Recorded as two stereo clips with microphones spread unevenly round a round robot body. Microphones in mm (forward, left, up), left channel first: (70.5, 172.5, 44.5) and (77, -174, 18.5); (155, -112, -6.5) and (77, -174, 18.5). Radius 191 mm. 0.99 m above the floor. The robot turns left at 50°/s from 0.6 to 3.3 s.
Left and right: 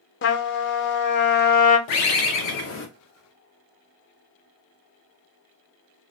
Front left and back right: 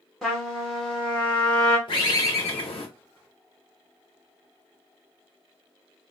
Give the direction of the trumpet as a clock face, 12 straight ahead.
9 o'clock.